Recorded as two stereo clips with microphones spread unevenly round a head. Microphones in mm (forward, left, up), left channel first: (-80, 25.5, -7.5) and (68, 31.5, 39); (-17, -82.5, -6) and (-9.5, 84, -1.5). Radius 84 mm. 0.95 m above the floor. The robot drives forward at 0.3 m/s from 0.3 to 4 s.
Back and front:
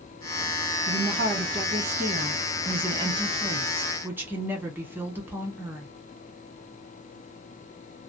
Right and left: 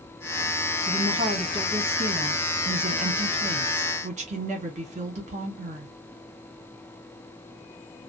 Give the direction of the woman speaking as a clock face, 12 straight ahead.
11 o'clock.